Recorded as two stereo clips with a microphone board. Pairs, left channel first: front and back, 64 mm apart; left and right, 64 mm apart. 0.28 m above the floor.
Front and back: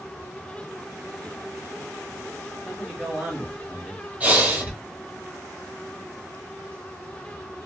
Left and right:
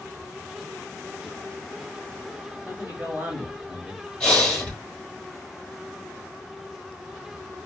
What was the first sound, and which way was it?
A man speaking, 95° right.